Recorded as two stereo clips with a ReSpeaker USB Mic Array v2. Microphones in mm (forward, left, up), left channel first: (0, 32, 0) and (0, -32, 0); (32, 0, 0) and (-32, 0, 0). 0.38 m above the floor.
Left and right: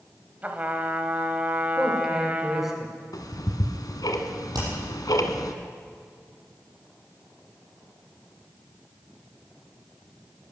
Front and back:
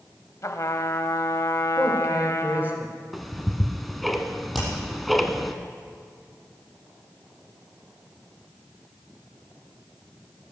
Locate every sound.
0.4 s a trumpet: 25° right, 1.0 m
1.8 s a man speaking: 170° right, 1.5 m
3.1 s ticking: 90° left, 1.3 m
4.5 s hammering: 95° right, 6 m